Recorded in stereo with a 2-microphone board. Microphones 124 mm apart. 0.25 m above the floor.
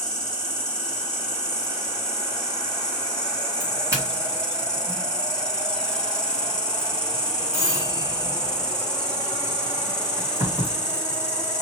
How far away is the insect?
About 0.9 m.